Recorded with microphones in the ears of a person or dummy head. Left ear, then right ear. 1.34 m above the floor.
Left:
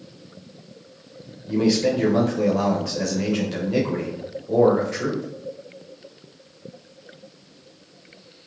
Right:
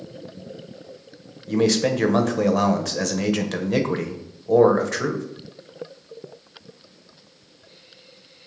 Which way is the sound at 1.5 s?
45° right (ahead or behind).